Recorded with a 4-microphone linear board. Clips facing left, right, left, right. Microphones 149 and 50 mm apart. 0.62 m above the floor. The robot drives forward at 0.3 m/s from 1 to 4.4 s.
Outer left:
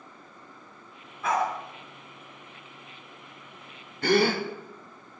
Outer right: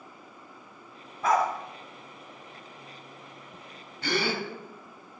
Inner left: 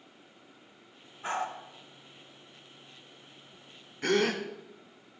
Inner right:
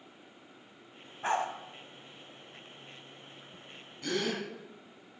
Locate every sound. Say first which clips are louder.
1.2 s a dog barking: outer right 2 dB, inner right 2 dB; 40° right (ahead or behind), 1.5 m
4.0 s a gasp: outer left 7 dB, inner left 6 dB; 50° left (ahead or behind), 0.9 m; by 4.4 s 45° left (ahead or behind), 0.9 m